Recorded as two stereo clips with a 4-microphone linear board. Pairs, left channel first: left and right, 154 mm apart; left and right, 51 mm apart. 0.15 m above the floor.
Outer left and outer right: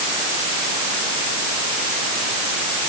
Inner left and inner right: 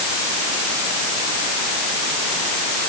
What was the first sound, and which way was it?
Only background noise.